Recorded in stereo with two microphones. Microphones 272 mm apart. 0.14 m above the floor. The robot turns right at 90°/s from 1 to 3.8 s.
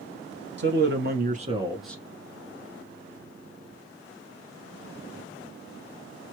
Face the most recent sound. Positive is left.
turn(degrees=175)